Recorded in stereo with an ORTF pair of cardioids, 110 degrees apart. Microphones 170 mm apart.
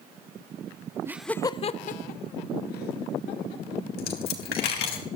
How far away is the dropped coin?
About 3.5 m.